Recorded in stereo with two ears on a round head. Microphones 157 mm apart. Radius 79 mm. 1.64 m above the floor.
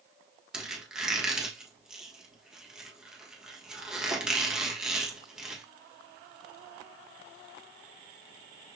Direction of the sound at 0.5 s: 5° right (ahead or behind).